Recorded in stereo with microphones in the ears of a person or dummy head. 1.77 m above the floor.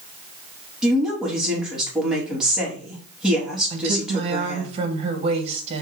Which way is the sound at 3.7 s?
30° right (ahead or behind).